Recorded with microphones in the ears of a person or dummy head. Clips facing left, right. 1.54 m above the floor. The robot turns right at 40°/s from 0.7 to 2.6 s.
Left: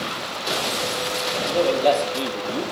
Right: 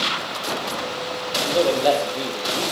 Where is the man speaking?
30° right, 0.9 m; by 2.6 s 20° left, 0.9 m.